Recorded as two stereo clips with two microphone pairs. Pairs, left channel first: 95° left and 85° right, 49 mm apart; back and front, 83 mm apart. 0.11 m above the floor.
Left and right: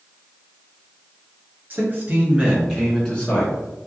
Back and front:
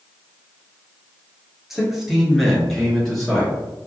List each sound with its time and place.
1.7 s a man speaking: 90° right, 1.4 m; by 3.5 s 95° left, 1.1 m